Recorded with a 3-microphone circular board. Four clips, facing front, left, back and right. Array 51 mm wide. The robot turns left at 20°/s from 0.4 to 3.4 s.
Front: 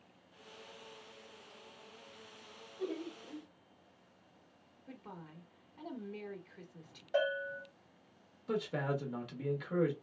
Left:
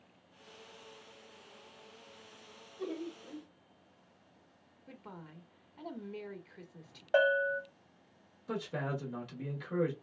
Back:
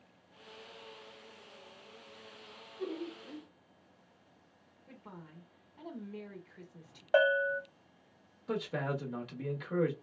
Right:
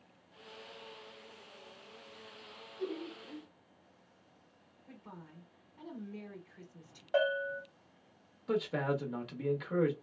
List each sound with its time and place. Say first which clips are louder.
2.8 s laughter: even, back 1 dB; 90° left, 1.5 m; by 3.5 s 80° left, 1.5 m
4.9 s a woman speaking: left 2 dB, front 1 dB; 80° left, 1.1 m
7.1 s a bell: left 4 dB, back 7 dB; 160° left, 0.9 m
8.5 s a man speaking: right 5 dB, even; 105° right, 0.8 m